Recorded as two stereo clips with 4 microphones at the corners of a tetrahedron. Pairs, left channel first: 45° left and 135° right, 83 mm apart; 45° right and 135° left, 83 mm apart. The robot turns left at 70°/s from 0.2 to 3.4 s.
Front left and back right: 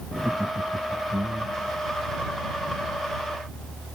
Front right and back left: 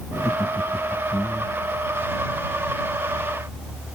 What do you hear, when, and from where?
0.1 s laughter: 70° right; by 1.7 s straight behind